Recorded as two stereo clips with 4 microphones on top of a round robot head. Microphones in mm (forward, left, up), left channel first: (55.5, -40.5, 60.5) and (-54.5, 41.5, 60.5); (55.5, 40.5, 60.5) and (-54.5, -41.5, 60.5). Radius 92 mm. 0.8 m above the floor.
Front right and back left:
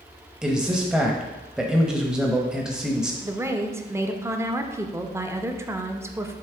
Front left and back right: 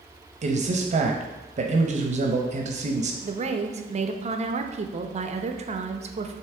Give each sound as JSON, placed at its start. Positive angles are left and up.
{"t": 0.4, "sound": "a man speaking", "azimuth_deg": -135, "distance_m": 0.8}
{"t": 3.2, "sound": "a woman speaking", "azimuth_deg": -150, "distance_m": 0.7}